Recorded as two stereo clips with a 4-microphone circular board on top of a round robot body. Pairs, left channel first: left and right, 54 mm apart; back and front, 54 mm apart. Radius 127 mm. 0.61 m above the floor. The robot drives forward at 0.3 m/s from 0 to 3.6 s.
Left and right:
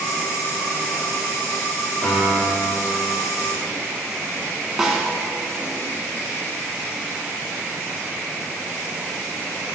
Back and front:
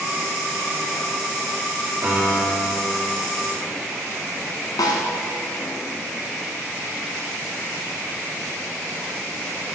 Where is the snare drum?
170° right, 1.0 m.